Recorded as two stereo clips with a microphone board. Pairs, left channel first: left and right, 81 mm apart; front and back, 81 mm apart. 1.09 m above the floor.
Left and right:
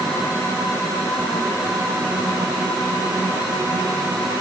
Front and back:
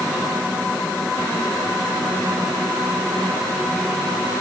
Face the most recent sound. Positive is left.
No sound to turn to.